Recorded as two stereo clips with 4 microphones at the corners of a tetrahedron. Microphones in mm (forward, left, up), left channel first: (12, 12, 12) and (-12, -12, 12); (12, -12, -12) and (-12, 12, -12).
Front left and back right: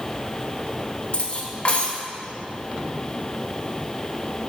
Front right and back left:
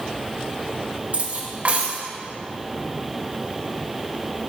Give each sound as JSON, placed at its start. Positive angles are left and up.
{"t": 1.1, "sound": "cutlery clinking", "azimuth_deg": 90, "distance_m": 1.0}